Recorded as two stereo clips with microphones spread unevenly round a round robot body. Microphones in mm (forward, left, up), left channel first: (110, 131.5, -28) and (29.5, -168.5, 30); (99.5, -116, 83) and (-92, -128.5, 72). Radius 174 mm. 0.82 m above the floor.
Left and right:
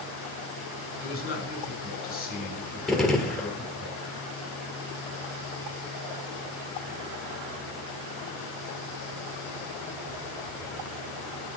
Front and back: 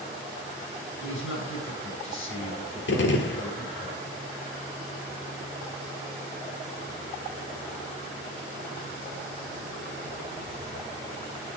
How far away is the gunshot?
About 1.5 m.